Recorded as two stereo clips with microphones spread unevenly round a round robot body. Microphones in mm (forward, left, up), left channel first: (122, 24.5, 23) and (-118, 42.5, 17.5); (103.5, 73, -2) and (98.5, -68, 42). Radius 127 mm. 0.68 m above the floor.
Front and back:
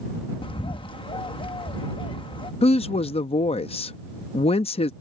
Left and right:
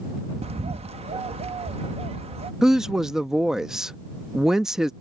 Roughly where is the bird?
Ahead right.